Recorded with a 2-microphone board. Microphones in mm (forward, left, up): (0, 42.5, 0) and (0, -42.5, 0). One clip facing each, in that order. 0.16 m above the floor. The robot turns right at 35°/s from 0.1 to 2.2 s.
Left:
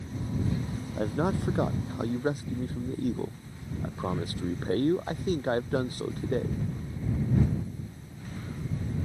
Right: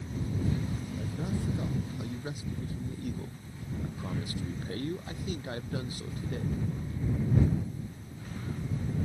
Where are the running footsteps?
No running footsteps in this recording.